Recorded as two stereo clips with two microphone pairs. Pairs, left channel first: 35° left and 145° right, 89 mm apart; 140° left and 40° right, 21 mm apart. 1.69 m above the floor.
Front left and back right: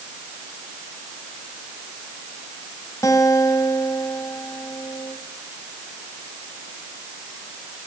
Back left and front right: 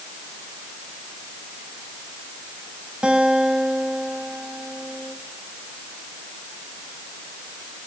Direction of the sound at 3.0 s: 15° right.